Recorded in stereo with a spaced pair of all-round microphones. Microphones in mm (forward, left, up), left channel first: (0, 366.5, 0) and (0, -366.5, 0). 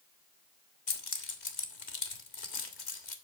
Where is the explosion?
No explosion in this recording.